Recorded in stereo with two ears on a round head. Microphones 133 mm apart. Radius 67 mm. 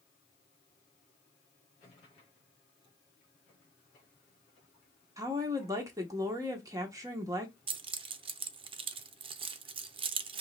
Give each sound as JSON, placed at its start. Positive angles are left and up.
{"t": 5.2, "sound": "a woman speaking", "side_deg": -25, "distance_m": 1.2}
{"t": 7.7, "sound": "keys jangling", "side_deg": -35, "distance_m": 0.5}